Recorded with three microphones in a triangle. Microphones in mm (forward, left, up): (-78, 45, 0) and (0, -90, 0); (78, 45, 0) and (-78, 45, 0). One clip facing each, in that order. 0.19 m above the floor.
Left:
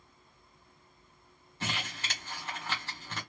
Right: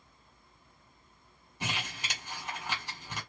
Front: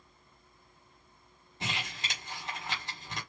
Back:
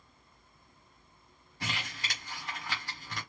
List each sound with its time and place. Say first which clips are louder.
1.6 s crumpling: even, front 1 dB; 10° right, 1.5 m